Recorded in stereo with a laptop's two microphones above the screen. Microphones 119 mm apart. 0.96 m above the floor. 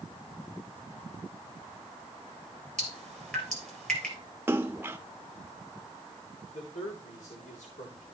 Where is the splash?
15° right (ahead or behind), 0.9 m.